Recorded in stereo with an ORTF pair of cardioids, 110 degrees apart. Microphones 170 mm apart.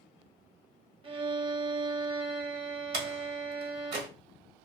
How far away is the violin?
About 0.6 m.